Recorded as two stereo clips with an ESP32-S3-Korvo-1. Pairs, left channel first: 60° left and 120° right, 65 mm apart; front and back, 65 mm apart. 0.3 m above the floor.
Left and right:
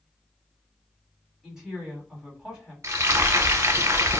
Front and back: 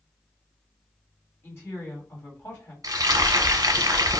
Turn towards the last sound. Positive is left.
turn(degrees=-160)